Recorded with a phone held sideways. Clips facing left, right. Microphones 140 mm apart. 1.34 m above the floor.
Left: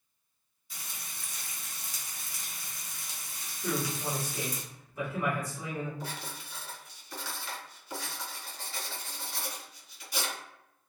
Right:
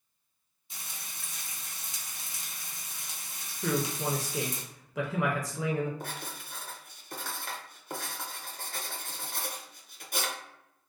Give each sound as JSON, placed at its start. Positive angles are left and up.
{"t": 0.7, "sound": "frying", "side_deg": -20, "distance_m": 0.7}
{"t": 3.6, "sound": "a man speaking", "side_deg": -75, "distance_m": 0.6}
{"t": 6.0, "sound": "writing", "side_deg": -50, "distance_m": 0.5}